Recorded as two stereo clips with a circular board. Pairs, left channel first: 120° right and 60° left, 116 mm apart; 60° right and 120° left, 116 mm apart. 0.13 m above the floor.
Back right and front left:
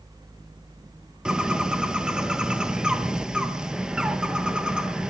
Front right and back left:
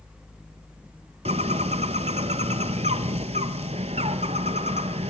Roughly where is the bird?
Behind left.